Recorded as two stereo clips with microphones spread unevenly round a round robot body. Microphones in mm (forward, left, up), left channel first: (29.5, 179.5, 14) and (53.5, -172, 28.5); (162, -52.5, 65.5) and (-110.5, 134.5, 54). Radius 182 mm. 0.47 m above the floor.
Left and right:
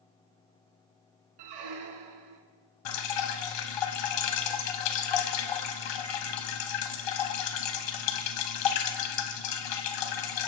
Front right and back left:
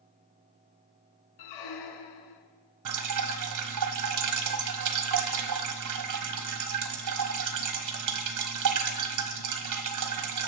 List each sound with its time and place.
1.4 s a squeak: 65° right, 1.4 m
2.9 s dripping: 110° left, 1.3 m